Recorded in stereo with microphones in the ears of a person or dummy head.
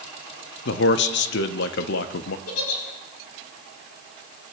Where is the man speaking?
55° left (ahead or behind), 0.5 m.